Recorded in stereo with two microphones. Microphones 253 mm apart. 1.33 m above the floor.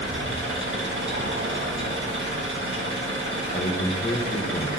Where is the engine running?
50° right (ahead or behind), 1.7 m.